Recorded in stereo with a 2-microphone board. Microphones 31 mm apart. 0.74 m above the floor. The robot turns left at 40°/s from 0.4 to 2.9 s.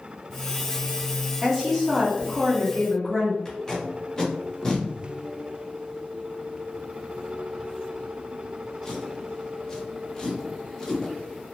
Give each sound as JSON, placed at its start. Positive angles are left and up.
{"t": 1.4, "sound": "a woman speaking", "side_deg": -5, "distance_m": 1.1}
{"t": 3.5, "sound": "tape being pulled", "side_deg": 20, "distance_m": 0.8}